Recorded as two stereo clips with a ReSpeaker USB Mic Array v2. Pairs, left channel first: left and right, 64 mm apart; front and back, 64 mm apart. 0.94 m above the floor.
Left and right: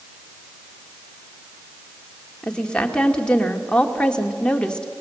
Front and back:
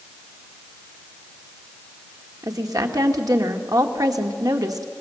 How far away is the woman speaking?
About 2 m.